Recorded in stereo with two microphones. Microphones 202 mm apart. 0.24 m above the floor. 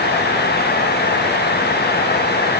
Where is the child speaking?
No child speaking in this recording.